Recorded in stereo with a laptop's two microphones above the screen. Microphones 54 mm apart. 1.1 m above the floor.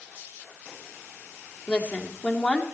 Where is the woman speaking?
30° left (ahead or behind), 2 m.